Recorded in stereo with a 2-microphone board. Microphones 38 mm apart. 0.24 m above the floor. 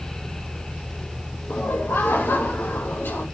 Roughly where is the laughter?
Left.